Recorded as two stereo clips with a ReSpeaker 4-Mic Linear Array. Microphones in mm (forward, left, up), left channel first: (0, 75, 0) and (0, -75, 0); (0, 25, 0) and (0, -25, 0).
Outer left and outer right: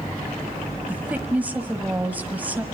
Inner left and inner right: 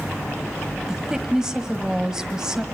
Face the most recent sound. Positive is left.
turn(degrees=-10)  # may be behind; listen again after turning